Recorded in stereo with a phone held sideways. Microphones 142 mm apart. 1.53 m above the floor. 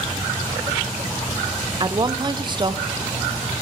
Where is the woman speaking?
30° right (ahead or behind), 0.5 m.